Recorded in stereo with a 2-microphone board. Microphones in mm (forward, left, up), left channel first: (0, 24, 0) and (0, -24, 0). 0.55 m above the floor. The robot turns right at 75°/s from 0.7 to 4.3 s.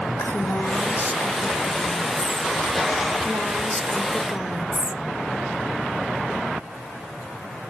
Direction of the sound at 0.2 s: 80° left.